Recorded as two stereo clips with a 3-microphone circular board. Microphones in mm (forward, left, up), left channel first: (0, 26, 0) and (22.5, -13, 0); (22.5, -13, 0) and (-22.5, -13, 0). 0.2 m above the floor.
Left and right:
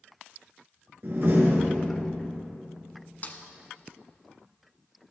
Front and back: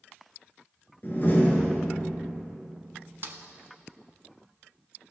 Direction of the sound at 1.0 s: 35° right.